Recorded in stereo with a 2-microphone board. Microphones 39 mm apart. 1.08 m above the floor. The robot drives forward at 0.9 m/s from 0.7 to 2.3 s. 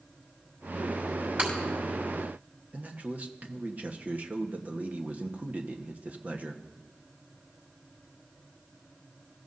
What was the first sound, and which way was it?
Breaking glass, 45° right (ahead or behind).